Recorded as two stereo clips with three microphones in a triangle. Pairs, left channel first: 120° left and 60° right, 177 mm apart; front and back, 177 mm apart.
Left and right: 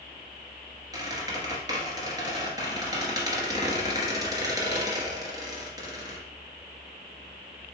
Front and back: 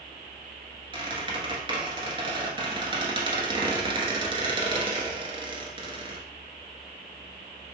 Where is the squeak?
125° right, 1.2 m.